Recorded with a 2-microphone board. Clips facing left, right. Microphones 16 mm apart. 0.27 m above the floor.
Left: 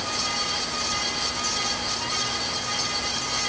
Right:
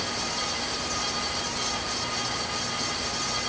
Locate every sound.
Only background noise.